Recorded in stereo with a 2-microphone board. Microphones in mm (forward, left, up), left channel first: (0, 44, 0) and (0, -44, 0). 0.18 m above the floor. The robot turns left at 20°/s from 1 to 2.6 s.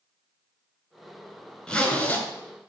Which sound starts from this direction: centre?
A zipper, at 1.7 s.